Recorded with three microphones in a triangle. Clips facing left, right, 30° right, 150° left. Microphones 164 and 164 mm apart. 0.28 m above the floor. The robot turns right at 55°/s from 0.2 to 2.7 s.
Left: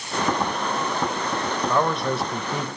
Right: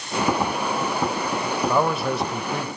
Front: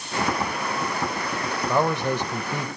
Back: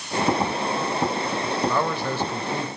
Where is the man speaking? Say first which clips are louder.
Right 1 dB, front 2 dB; 25° right, 0.9 m; by 2.7 s 30° left, 0.9 m.